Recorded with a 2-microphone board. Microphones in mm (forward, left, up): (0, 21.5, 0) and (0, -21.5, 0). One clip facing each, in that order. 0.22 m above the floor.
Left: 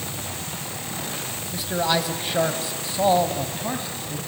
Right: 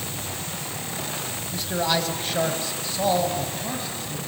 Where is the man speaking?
5° left (ahead or behind), 1.6 m; by 4.2 s 20° left (ahead or behind), 1.9 m.